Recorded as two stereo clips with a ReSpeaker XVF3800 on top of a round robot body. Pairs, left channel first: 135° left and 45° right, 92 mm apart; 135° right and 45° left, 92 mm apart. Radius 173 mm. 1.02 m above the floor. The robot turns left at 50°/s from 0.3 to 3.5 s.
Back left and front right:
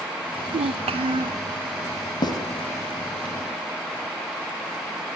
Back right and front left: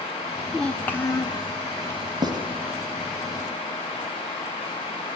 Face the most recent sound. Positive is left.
turn(degrees=30)